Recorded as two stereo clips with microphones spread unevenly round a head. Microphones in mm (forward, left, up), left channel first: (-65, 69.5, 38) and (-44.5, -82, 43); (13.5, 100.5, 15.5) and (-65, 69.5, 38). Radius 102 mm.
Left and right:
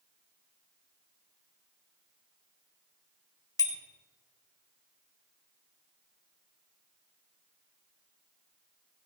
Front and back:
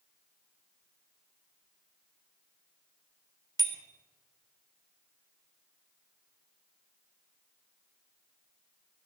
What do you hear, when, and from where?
3.6 s a bicycle bell: 165° left, 2 m